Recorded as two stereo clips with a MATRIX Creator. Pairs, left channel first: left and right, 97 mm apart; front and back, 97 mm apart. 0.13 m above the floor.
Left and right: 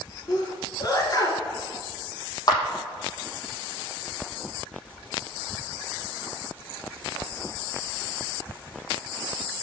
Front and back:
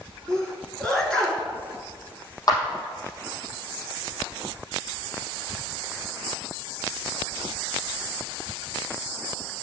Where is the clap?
45° left, 4 m.